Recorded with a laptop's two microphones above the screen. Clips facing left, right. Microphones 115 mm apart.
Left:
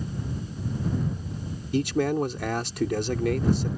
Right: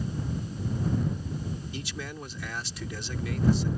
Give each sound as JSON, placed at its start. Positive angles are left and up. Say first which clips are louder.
{"t": 1.7, "sound": "a man speaking", "louder": "left 14 dB", "side_deg": 60}